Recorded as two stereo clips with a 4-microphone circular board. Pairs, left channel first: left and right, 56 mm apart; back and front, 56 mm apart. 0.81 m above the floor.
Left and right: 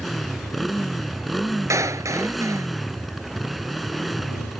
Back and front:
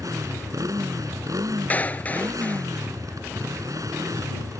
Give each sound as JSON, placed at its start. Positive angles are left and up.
{"t": 0.0, "sound": "a motorcycle", "azimuth_deg": 0}
{"t": 1.7, "sound": "a clap", "azimuth_deg": -120}